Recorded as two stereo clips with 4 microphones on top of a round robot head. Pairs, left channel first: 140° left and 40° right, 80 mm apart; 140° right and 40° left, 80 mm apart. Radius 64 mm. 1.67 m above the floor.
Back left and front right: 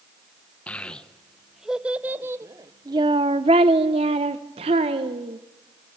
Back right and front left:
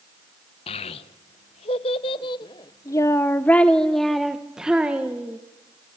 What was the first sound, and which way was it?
A child speaking, 145° right.